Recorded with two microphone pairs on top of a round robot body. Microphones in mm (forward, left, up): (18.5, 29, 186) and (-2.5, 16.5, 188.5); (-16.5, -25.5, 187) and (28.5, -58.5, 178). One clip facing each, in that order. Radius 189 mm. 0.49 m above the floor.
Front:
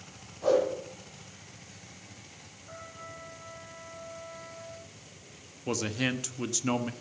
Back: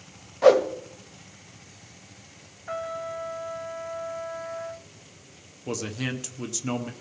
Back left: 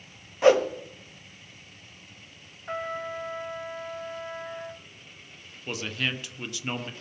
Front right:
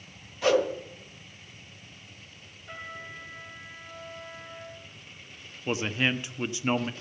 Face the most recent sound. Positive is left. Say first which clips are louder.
# front 1 dB, front right 4 dB
turn(degrees=-20)